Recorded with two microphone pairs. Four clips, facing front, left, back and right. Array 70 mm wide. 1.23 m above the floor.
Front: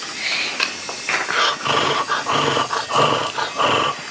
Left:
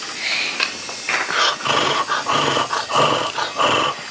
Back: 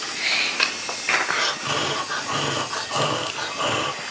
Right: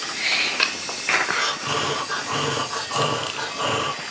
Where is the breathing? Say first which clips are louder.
Left 6 dB, front 6 dB; 40° left, 0.5 m.